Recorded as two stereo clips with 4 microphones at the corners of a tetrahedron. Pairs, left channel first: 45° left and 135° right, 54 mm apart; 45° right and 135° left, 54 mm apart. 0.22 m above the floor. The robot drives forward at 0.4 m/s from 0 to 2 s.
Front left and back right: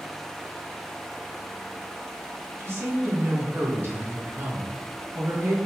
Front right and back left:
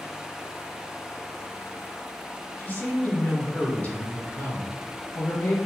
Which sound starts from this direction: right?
A woman speaking, at 2.6 s.